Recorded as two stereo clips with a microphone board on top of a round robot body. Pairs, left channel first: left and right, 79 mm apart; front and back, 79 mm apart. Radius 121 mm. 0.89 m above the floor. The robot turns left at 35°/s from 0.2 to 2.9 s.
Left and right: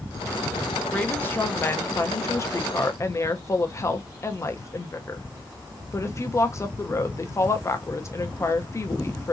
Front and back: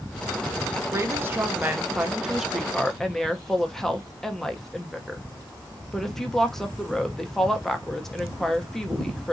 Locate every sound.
0.9 s a woman speaking: 150° left, 0.9 m; by 9.3 s 80° left, 0.9 m